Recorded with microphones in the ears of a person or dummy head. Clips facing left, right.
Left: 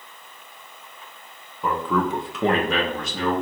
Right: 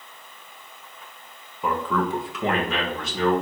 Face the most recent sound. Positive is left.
turn(degrees=45)  # may be behind; listen again after turning